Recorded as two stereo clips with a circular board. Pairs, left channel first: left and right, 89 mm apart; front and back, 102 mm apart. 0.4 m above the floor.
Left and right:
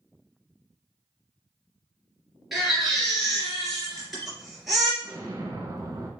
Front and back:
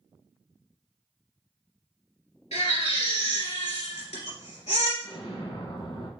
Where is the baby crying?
Straight ahead, 1.9 m.